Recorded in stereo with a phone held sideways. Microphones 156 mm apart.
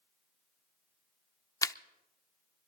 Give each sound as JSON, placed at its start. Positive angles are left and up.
{"t": 1.6, "sound": "a camera shutter", "side_deg": 20, "distance_m": 0.5}